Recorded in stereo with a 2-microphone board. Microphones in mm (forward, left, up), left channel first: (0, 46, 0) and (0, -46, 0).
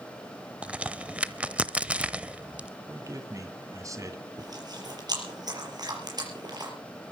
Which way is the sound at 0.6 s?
15° right (ahead or behind).